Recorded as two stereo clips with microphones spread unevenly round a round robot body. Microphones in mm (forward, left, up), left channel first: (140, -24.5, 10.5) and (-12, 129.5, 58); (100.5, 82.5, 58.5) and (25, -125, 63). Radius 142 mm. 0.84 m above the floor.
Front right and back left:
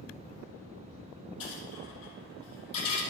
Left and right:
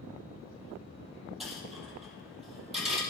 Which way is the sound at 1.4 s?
20° right.